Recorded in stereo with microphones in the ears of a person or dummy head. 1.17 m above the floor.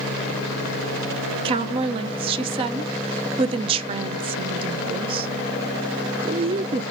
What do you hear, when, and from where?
1.4 s a woman speaking: 30° right (ahead or behind), 0.6 m